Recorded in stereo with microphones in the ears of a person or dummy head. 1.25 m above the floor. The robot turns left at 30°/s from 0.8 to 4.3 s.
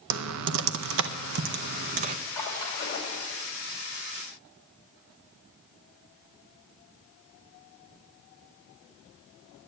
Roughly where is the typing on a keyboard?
Right.